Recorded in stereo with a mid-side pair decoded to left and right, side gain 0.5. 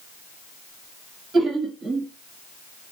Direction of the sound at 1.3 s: 45° right.